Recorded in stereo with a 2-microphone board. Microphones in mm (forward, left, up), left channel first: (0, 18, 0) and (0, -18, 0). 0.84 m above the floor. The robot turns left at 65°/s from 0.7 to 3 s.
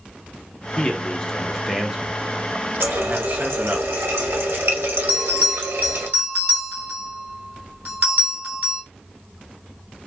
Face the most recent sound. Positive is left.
turn(degrees=-40)  # may be behind; listen again after turning